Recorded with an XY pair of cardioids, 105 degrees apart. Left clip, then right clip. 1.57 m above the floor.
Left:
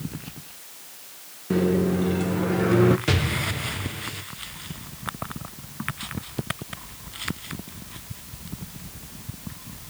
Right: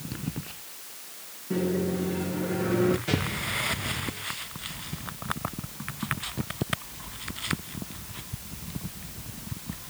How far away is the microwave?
About 1.2 m.